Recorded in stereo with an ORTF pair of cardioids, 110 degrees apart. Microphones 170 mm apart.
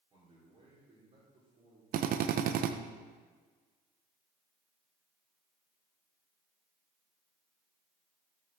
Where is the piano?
I don't hear a piano.